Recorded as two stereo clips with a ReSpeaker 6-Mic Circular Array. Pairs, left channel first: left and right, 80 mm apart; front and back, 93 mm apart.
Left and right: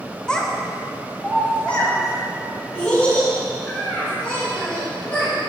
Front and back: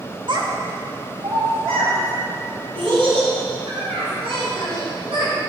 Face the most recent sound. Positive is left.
turn(degrees=165)